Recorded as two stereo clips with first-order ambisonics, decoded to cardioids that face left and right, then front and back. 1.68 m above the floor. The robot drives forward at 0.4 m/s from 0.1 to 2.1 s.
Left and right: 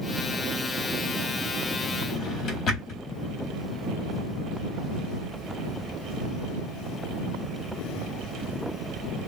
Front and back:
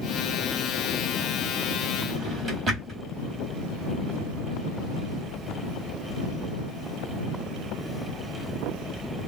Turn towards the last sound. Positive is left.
turn(degrees=140)